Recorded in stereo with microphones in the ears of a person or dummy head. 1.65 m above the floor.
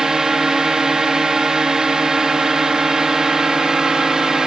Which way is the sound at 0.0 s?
5° right (ahead or behind).